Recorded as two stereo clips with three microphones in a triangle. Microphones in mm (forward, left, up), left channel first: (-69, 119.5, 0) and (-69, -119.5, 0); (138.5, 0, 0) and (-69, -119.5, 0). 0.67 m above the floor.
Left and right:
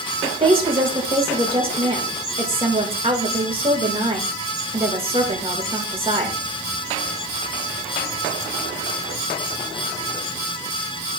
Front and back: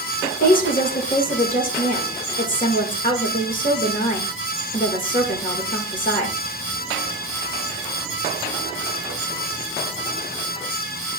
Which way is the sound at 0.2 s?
25° right.